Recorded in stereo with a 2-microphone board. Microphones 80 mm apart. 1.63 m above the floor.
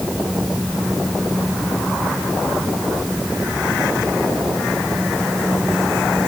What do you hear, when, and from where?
Only background noise.